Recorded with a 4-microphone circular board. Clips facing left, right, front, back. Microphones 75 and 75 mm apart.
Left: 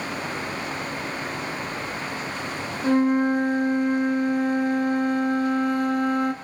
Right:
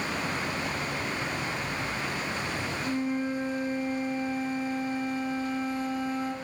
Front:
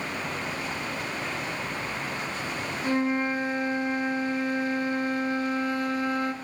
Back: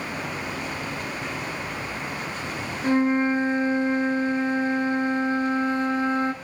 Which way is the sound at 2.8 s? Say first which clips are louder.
Left 12 dB, back 5 dB; 115° left.